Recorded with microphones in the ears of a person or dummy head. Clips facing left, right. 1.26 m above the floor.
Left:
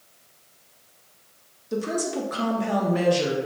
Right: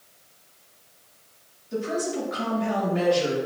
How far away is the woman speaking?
About 1.1 m.